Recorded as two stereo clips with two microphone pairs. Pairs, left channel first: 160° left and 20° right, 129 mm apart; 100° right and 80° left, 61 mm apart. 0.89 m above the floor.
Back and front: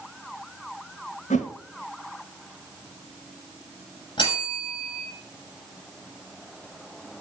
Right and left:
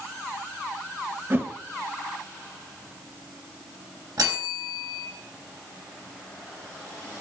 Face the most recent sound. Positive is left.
turn(degrees=105)